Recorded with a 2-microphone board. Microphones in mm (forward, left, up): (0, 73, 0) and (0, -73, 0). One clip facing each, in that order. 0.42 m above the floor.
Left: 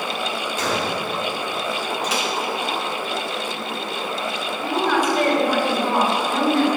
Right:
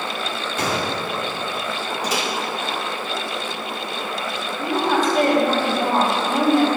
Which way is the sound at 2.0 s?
40° right (ahead or behind).